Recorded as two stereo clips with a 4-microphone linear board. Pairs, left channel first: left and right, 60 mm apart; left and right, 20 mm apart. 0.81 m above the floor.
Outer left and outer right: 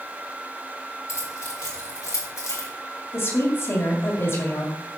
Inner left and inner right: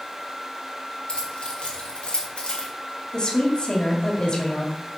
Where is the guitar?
I don't hear a guitar.